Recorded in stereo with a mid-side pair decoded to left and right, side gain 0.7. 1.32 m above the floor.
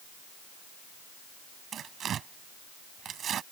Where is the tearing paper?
40° right.